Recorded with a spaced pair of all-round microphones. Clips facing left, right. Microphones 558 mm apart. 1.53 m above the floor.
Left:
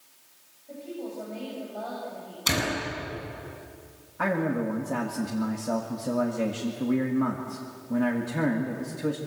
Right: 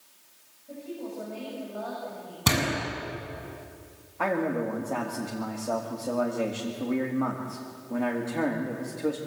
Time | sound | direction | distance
0.7 | a woman speaking | 30° right (ahead or behind) | 8.5 m
2.5 | a door slam | 70° right (ahead or behind) | 8.5 m
4.2 | a man speaking | 40° left (ahead or behind) | 2.0 m